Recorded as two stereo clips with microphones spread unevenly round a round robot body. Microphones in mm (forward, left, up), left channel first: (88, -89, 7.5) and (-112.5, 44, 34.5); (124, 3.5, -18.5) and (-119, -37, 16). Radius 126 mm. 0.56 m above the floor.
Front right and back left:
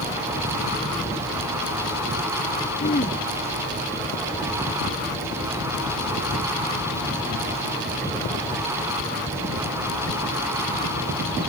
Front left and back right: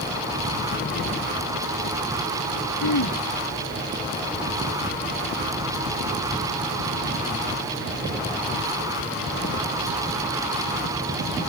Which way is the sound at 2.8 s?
30° left.